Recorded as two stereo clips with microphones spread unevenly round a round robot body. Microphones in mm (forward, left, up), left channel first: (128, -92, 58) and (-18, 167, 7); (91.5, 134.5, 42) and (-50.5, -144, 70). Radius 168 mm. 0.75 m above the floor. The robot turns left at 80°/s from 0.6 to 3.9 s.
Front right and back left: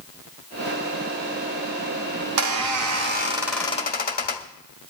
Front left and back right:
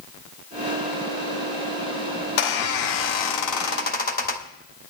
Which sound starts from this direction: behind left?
A squeak, at 2.2 s.